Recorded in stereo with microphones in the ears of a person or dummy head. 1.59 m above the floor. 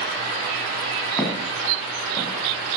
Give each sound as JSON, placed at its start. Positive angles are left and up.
{"t": 1.2, "sound": "footsteps", "side_deg": -5, "distance_m": 4.5}